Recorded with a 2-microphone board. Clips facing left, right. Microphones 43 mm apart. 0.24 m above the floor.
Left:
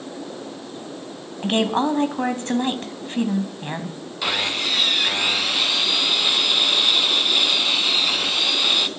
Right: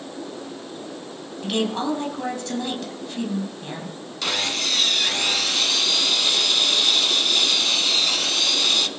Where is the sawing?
15° left (ahead or behind), 1.0 m.